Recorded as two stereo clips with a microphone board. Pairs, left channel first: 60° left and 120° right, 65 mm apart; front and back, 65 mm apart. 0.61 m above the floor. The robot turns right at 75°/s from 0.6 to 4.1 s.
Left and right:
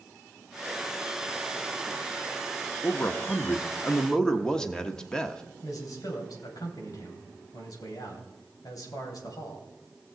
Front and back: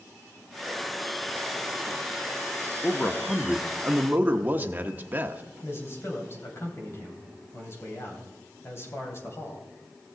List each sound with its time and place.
2.8 s a man speaking: 40° left, 0.9 m; by 5.4 s 135° left, 0.9 m
5.6 s a man speaking: 45° left, 2.5 m